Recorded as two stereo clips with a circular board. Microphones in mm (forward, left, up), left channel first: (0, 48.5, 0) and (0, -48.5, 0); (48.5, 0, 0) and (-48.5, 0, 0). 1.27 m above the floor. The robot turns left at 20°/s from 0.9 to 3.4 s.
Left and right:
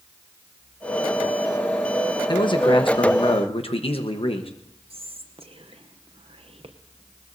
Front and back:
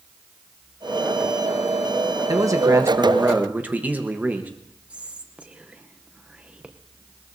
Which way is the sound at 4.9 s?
100° right.